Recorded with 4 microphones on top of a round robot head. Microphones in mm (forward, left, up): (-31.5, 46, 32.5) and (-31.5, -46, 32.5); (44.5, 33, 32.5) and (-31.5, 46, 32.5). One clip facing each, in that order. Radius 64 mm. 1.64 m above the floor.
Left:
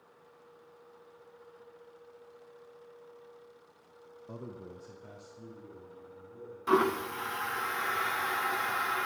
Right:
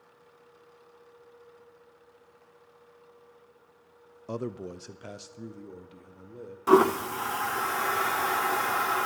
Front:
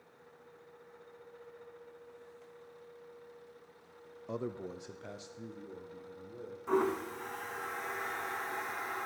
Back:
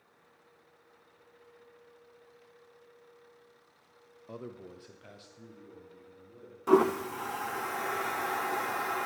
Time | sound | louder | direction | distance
4.3 | a man speaking | right 10 dB, front 5 dB | 80° right | 0.5 m
6.7 | a toilet flushing | right 7 dB, back 7 dB | 140° right | 0.6 m